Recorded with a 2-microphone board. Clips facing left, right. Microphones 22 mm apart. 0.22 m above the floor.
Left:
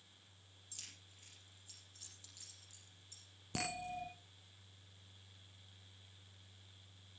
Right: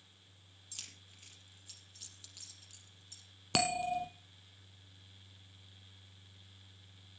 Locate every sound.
0.7 s keys jangling: 30° right (ahead or behind), 3.5 m
3.5 s a bell: 60° right (ahead or behind), 1.6 m